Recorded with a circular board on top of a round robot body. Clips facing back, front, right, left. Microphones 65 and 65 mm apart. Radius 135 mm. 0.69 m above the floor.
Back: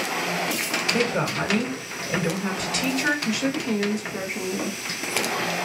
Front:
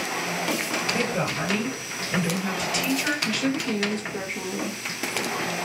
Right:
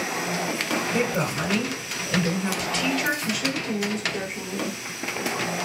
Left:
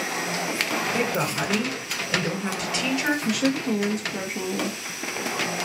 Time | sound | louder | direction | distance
0.9 | a woman speaking | back 4 dB, even | 160° left | 1.6 m
3.2 | a woman speaking | back 1 dB, left 4 dB | 110° left | 0.8 m